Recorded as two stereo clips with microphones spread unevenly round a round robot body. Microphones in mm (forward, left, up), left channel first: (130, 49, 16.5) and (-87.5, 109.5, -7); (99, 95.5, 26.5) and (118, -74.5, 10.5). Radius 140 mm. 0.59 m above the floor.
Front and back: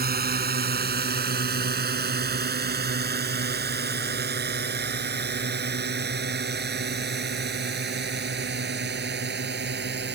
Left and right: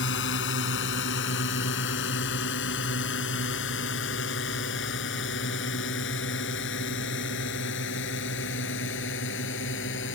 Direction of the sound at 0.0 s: 120° left.